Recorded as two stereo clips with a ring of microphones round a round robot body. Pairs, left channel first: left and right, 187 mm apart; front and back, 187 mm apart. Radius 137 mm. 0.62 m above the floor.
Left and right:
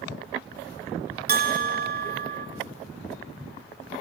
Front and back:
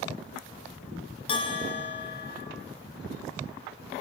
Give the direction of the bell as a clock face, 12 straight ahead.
2 o'clock.